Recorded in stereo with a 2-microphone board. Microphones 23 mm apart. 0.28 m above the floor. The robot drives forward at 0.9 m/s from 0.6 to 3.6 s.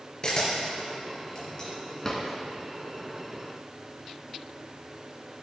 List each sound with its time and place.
0.2 s a camera shutter: 35° left (ahead or behind), 3.5 m; by 1.7 s 30° left (ahead or behind), 4.5 m
2.0 s a drawer: 20° left (ahead or behind), 1.8 m